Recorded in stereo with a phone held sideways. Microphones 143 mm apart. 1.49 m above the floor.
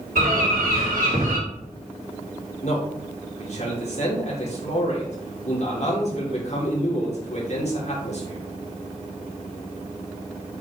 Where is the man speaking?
55° left (ahead or behind), 3.5 m.